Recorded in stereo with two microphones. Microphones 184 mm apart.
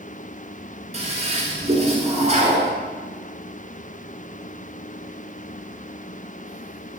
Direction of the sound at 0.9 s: 35° right (ahead or behind).